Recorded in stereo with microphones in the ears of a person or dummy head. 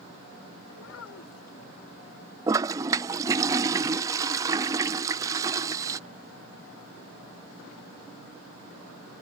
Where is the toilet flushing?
20° right (ahead or behind).